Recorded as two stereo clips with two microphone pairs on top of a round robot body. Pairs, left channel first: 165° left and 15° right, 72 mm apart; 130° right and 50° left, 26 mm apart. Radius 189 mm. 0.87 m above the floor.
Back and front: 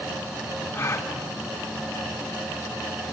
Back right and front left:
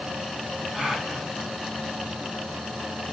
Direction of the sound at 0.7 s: 115° left.